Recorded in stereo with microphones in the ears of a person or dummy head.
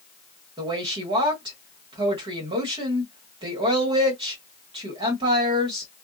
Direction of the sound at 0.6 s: 30° right (ahead or behind).